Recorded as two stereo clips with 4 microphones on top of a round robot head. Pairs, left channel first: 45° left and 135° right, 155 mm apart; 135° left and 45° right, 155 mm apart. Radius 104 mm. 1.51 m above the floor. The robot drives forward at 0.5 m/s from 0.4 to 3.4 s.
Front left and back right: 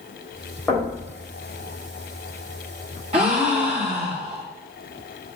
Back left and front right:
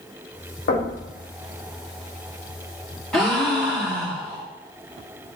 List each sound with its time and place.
0.7 s knocking: 130° left, 3.5 m
3.1 s a gasp: 140° right, 1.0 m; by 4.5 s 150° right, 1.1 m